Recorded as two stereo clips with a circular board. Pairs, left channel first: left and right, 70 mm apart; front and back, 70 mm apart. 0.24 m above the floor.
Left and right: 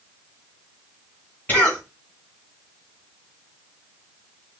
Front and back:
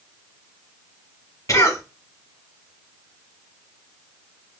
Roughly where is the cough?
Ahead left.